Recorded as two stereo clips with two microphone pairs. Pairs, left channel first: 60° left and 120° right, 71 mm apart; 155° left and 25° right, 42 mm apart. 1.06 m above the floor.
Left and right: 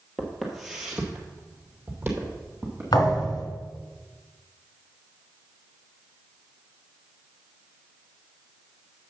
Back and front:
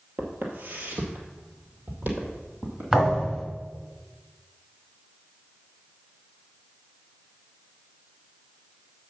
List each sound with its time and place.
0.2 s footsteps: 25° right, 1.5 m; by 2.8 s 65° right, 2.5 m
2.9 s a thud: 50° left, 2.5 m